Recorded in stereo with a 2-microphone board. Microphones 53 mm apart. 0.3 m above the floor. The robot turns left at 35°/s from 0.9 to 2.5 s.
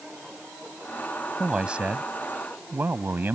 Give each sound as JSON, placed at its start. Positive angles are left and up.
{"t": 1.4, "sound": "a man speaking", "azimuth_deg": -15}